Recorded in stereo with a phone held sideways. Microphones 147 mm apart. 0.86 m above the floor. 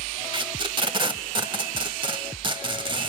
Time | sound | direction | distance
0.3 | tape being pulled | 35° right (ahead or behind) | 0.7 m